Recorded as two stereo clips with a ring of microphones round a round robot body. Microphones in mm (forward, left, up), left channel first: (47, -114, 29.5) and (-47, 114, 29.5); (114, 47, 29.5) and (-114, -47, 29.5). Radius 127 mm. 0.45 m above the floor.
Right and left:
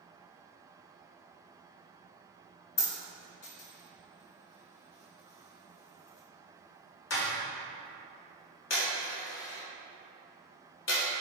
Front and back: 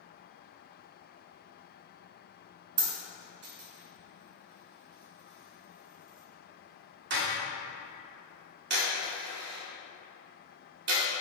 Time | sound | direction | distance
2.8 | a dropped coin | 110° right | 0.9 m